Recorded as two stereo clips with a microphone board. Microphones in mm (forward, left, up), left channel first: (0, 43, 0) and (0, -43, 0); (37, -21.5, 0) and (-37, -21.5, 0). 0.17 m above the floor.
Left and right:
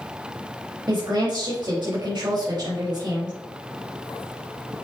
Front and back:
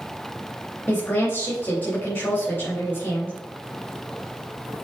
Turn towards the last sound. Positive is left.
turn(degrees=-60)